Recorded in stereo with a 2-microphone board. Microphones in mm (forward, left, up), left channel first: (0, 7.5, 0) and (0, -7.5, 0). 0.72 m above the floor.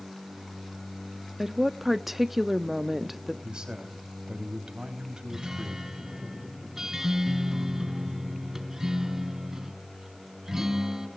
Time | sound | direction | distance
1.4 | a woman speaking | 15° right (ahead or behind) | 0.7 m
3.4 | a man speaking | 75° right (ahead or behind) | 4 m
5.3 | a guitar | 30° right (ahead or behind) | 4 m